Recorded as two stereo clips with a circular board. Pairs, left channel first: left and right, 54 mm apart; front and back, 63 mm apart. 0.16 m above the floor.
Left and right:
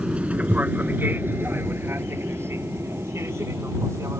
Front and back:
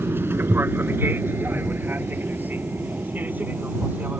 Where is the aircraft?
150° right; by 4.2 s 120° right.